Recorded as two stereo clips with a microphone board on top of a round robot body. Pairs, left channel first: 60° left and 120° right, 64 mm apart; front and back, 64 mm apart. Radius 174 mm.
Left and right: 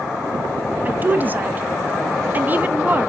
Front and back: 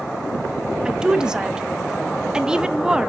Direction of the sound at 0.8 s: 115° right.